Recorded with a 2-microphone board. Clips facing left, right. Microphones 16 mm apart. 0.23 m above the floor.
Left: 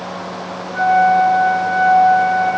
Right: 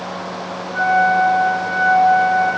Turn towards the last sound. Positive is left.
turn(degrees=-10)  # may be behind; listen again after turning